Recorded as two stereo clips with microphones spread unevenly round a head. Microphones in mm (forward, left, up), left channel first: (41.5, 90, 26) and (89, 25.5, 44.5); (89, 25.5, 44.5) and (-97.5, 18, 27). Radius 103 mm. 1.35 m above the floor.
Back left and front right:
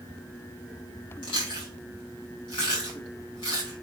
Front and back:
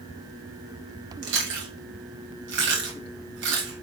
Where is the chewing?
160° left, 1.4 m.